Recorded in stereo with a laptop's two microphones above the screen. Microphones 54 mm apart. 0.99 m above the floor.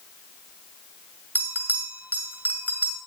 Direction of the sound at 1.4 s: 40° right (ahead or behind).